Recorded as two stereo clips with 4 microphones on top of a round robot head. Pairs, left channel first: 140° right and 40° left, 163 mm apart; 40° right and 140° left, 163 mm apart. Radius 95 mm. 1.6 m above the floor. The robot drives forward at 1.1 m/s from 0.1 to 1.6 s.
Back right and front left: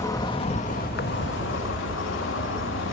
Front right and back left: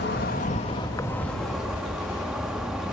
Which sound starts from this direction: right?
An insect, at 0.0 s.